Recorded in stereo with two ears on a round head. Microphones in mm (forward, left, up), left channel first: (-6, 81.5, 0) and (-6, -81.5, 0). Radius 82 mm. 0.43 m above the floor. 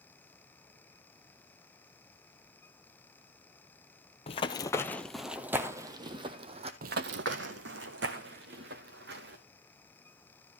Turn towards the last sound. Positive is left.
turn(degrees=-60)  # may be behind; listen again after turning